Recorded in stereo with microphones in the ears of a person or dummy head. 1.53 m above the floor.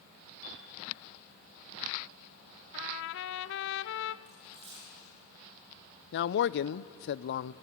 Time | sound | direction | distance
0.4 | a piano | 75° left (ahead or behind) | 9 m
2.7 | a trumpet | 60° left (ahead or behind) | 0.6 m
4.3 | a dropped coin | 30° right (ahead or behind) | 8 m
6.1 | a man speaking | 65° left (ahead or behind) | 0.6 m